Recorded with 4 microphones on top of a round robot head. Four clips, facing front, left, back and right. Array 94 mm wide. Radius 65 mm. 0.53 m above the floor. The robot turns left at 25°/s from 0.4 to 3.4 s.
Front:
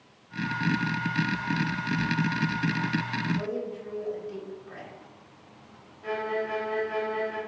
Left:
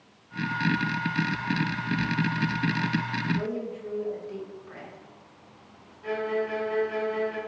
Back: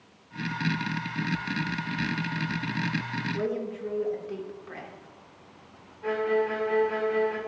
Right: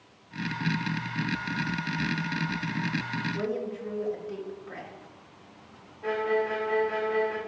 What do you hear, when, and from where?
3.3 s a woman speaking: 165° right, 1.9 m
6.0 s a violin: 145° right, 2.5 m